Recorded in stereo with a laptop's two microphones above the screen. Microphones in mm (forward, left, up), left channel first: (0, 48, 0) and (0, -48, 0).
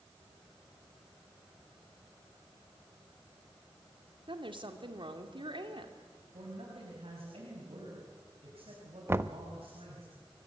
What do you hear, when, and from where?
4.3 s a woman speaking: 60° right (ahead or behind), 2.5 m
6.3 s a man speaking: 75° right (ahead or behind), 5.5 m
9.1 s knocking: 25° right (ahead or behind), 1.0 m